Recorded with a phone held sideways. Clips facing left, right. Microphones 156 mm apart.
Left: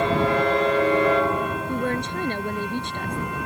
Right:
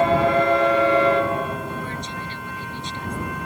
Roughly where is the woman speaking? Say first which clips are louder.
Left 6 dB; left.